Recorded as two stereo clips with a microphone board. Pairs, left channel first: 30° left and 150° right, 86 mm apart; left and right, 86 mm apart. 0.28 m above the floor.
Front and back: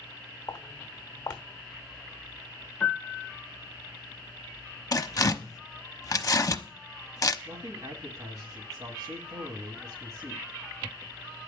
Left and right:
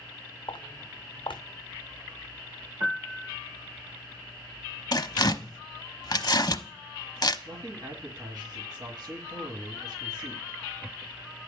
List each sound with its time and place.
0.5 s footsteps: 70° left, 1.2 m
2.8 s a piano: 40° right, 1.2 m
4.9 s tearing paper: 65° left, 0.7 m
7.5 s a man speaking: 105° right, 2 m